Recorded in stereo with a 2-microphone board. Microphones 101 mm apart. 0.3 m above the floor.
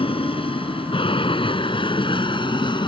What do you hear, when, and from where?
0.0 s an aircraft: 65° left (ahead or behind); by 2.9 s 50° left (ahead or behind)